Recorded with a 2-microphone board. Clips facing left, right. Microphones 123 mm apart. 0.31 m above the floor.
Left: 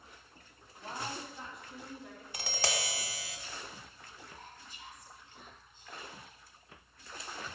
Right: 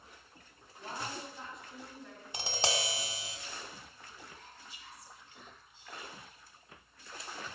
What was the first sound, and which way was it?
A woman speaking, 5° right (ahead or behind).